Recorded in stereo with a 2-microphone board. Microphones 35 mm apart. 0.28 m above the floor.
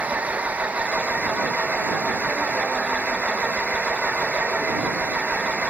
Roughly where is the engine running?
Right.